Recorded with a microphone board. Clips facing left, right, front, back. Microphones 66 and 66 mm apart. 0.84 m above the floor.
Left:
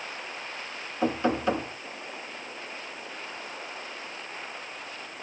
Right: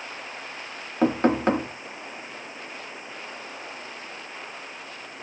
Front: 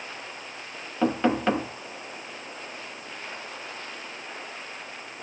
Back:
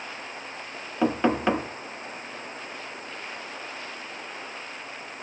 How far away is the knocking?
About 0.8 m.